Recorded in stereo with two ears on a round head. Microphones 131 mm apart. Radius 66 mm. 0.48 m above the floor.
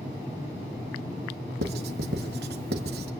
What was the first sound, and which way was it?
Writing, 80° right.